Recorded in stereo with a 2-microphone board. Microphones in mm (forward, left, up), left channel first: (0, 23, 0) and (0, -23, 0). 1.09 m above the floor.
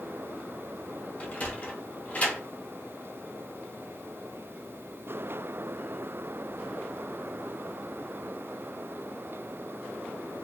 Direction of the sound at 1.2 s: 30° left (ahead or behind).